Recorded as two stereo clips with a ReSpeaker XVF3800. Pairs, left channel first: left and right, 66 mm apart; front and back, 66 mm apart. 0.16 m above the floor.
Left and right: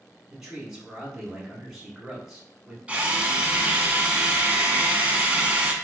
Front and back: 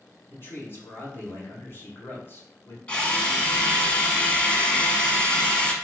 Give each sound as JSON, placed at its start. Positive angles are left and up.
{"t": 0.3, "sound": "a man speaking", "azimuth_deg": -10, "distance_m": 1.2}
{"t": 2.9, "sound": "a drill", "azimuth_deg": -45, "distance_m": 0.7}